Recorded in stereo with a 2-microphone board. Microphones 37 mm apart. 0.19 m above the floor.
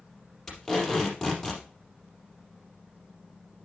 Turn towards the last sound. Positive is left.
turn(degrees=15)  # may be behind; listen again after turning